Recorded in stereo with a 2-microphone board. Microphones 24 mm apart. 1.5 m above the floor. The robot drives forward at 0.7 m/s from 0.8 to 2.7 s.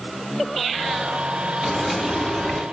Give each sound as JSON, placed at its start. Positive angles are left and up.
{"t": 1.6, "sound": "frying", "side_deg": 0, "distance_m": 2.0}